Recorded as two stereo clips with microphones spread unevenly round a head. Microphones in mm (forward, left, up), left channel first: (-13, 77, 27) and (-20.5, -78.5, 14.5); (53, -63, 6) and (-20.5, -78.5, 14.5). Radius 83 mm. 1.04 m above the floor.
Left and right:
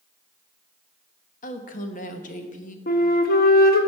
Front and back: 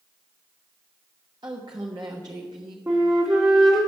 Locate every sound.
1.4 s a woman speaking: 130° left, 1.1 m
2.9 s a flute: 120° left, 1.0 m